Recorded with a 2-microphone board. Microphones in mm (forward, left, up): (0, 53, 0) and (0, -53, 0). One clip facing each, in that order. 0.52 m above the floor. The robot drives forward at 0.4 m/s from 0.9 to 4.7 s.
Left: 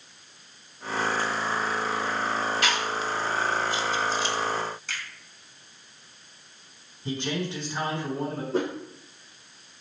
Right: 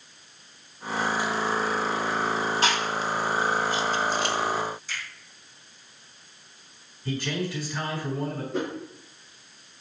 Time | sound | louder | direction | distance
2.6 | chewing | right 2 dB | 35° right (ahead or behind) | 1.3 m
4.9 | a finger snap | even | 75° left (ahead or behind) | 2 m
7.0 | a man speaking | even | 20° left (ahead or behind) | 4 m
8.5 | a whoosh | left 4 dB | 35° left (ahead or behind) | 4.5 m